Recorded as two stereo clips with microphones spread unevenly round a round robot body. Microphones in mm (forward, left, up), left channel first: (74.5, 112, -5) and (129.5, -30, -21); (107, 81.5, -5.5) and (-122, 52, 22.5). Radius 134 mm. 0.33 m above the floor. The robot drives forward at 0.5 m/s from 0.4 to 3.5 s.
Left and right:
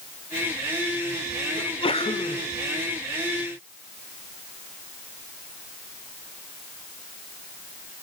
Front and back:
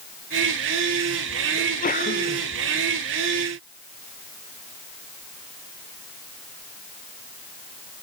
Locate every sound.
1.6 s a sneeze: 55° left, 2.5 m; by 2.4 s 65° left, 2.5 m